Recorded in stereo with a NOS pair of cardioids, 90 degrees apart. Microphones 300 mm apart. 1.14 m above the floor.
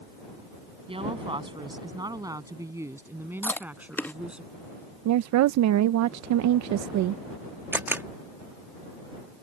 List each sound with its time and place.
0.9 s a woman speaking: 20° right; by 4.4 s 5° right
3.4 s chewing: 5° left
5.0 s a woman speaking: 65° right
7.7 s a camera shutter: 5° right